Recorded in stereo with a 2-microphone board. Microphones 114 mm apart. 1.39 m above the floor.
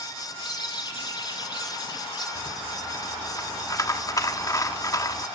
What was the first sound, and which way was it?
A bird, 40° left (ahead or behind).